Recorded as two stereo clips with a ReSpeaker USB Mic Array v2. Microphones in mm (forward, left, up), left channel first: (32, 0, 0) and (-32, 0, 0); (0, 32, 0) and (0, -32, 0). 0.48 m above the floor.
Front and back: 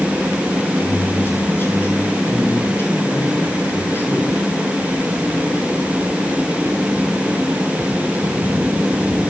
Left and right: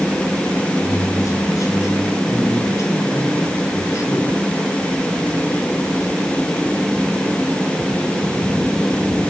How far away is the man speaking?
About 7.5 m.